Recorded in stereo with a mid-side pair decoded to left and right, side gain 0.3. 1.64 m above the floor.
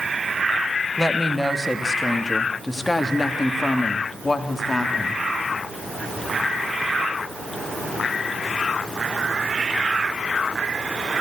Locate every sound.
1.0 s a woman speaking: 5° left, 3 m; by 5.2 s 40° left, 4 m